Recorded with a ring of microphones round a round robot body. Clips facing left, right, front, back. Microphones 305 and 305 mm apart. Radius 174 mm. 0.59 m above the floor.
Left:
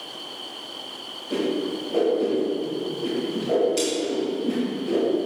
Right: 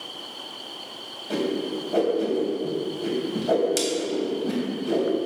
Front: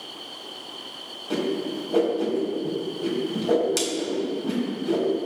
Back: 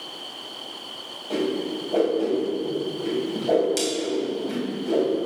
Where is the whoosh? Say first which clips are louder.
Left 1 dB, back 1 dB; 65° right, 3 m.